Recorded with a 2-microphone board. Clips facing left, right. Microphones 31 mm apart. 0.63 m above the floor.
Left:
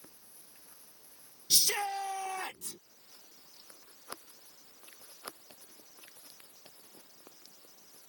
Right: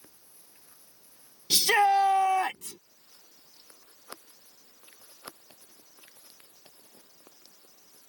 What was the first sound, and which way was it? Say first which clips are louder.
A shout: right 10 dB; 70° right (ahead or behind).